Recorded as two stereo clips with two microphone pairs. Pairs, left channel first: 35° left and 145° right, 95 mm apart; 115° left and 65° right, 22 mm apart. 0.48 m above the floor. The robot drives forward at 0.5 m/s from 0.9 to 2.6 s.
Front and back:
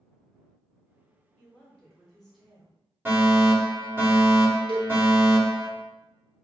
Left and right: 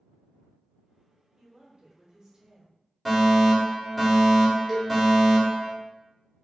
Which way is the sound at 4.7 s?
130° right.